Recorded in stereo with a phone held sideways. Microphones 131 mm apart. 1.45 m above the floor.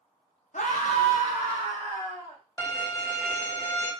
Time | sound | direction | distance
0.5 | a scream | 70° left (ahead or behind) | 0.6 m
2.6 | a violin | 20° left (ahead or behind) | 0.7 m